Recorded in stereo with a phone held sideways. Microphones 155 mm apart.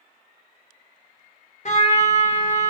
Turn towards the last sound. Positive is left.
turn(degrees=50)  # may be behind; listen again after turning